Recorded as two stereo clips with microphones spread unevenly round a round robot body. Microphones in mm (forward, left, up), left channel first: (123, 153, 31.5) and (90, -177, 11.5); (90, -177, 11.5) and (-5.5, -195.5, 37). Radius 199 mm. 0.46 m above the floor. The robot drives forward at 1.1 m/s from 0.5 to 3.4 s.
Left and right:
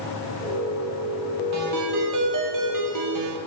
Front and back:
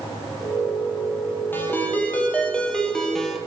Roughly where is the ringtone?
Ahead right.